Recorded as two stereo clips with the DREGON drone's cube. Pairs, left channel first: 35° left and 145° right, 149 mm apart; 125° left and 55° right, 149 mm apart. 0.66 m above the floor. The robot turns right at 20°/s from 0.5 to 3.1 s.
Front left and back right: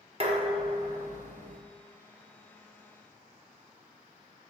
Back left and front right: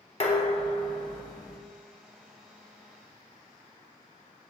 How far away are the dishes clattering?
About 0.7 m.